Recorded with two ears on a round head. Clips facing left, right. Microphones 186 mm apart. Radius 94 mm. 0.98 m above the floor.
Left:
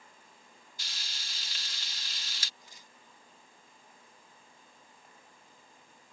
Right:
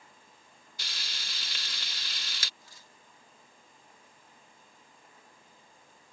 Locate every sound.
0.8 s frying: 50° right (ahead or behind)
2.6 s tearing paper: 20° left (ahead or behind)